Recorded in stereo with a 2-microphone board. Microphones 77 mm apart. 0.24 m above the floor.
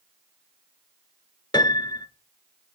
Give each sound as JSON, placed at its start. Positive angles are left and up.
{"t": 1.5, "sound": "a piano", "side_deg": 75, "distance_m": 0.6}